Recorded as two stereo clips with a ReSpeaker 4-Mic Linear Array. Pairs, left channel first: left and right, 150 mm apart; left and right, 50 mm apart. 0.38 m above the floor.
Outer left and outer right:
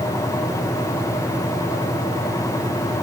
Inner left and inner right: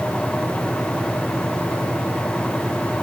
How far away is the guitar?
No guitar in this recording.